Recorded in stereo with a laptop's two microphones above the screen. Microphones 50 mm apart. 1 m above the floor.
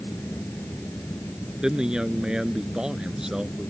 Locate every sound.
0.0 s a fan: 45° left (ahead or behind)
1.6 s a man speaking: 15° right (ahead or behind)